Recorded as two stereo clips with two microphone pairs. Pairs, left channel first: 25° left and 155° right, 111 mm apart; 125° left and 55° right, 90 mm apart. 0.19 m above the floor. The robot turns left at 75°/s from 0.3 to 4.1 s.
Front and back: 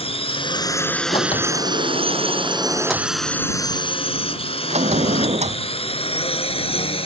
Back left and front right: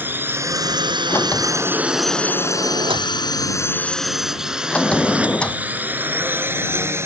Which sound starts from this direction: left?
A sliding door, at 1.1 s.